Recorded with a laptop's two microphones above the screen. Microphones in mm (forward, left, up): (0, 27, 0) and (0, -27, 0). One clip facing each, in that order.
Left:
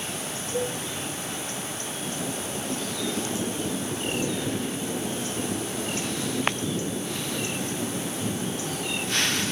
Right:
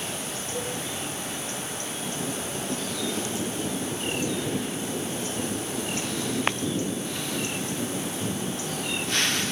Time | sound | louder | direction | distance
0.5 | a cowbell | left 5 dB | 30° left (ahead or behind) | 3 m